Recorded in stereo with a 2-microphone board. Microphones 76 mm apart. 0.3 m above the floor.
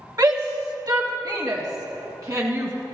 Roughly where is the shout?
Right.